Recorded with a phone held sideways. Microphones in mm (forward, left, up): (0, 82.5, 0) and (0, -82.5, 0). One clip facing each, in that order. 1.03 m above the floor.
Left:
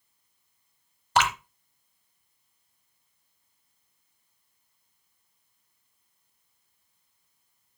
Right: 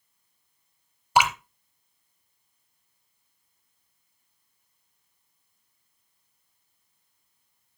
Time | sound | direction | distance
1.1 | dripping | 10° right (ahead or behind) | 0.9 m